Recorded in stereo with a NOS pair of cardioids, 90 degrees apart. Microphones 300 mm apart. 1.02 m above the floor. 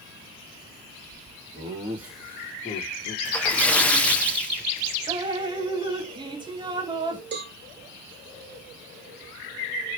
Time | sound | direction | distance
1.5 | laughter | 20° right | 1.5 m
3.2 | a splash | 5° left | 0.6 m
5.1 | dripping | 15° right | 0.6 m
7.3 | a cowbell | 35° right | 1.2 m